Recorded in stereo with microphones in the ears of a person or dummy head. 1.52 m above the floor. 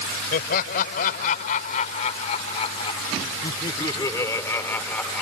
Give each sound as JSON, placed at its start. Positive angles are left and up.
{"t": 0.3, "sound": "laughter", "side_deg": 50}